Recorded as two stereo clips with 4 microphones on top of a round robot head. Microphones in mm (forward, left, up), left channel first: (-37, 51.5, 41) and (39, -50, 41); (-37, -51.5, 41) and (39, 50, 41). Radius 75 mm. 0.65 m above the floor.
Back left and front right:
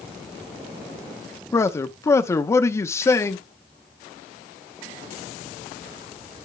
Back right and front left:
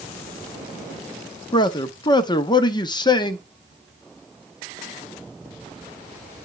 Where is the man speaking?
170° right, 0.8 m.